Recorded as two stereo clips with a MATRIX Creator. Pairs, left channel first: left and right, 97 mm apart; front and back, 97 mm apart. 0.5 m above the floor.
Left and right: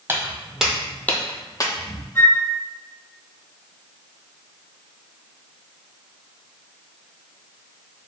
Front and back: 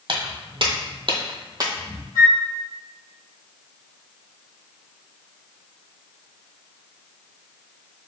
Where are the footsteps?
155° right, 1.0 m; by 2.0 s 120° left, 1.0 m.